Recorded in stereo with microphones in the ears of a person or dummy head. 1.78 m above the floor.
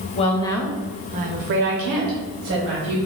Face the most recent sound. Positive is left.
turn(degrees=-75)  # may be behind; listen again after turning